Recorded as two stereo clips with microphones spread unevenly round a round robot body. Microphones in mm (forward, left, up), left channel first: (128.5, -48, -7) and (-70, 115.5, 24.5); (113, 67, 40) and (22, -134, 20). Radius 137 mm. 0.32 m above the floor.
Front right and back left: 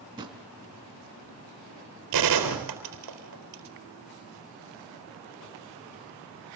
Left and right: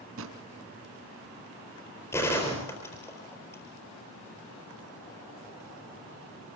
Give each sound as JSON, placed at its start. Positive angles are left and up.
{"t": 0.2, "sound": "a drawer", "azimuth_deg": -145, "distance_m": 2.5}
{"t": 2.1, "sound": "a gunshot", "azimuth_deg": 150, "distance_m": 4.0}